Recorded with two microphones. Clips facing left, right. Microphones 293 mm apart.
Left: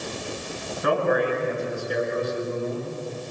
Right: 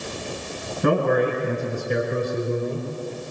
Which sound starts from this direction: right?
A man speaking, at 0.8 s.